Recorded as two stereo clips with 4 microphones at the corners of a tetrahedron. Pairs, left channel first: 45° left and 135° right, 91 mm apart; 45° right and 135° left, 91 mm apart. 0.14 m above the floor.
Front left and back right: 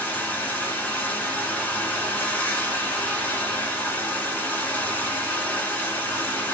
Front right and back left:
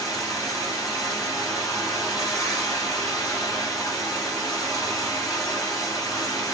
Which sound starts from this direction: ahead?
Running water, at 0.0 s.